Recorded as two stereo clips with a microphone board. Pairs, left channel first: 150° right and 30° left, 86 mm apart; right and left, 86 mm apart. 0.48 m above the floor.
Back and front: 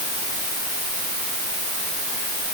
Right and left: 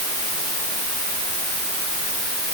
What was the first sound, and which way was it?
Only background noise.